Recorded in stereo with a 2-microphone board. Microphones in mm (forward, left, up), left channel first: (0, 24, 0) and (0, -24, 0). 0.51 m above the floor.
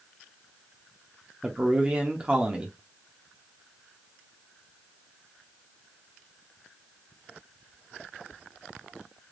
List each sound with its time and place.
1.4 s a man speaking: 25° right (ahead or behind), 0.7 m